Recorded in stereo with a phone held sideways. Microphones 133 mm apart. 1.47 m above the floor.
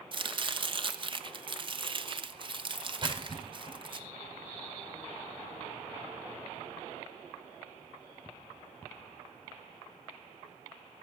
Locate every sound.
0.1 s chopping: 40° right (ahead or behind), 1.0 m
3.0 s a splash: 35° right (ahead or behind), 6 m